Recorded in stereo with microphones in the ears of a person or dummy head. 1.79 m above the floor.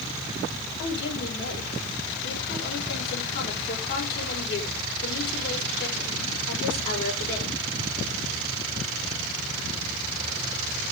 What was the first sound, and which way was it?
A woman speaking, 55° left (ahead or behind).